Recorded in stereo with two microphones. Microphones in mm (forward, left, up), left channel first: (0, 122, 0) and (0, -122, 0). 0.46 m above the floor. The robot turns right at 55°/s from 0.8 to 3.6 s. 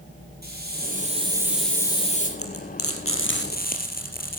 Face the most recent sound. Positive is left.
turn(degrees=40)  # may be behind; listen again after turning